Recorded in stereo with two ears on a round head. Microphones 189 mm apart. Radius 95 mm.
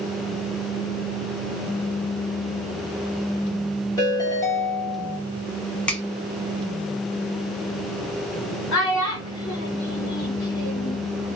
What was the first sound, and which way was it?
A ringtone, 15° left (ahead or behind).